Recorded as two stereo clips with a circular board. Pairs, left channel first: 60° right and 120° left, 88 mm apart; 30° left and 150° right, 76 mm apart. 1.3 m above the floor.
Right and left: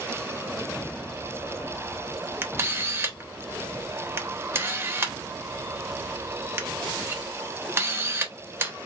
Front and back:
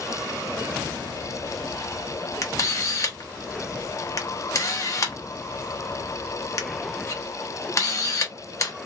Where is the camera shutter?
65° left, 0.7 m.